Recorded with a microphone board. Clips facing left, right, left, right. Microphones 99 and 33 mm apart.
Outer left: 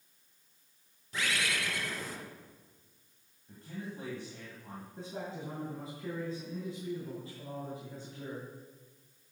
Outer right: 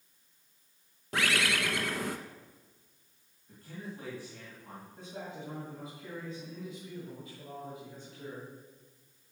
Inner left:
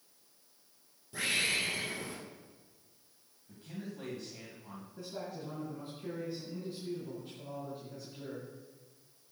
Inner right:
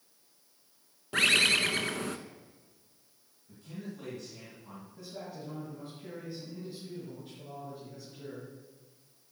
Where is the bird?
75° right (ahead or behind), 0.8 m.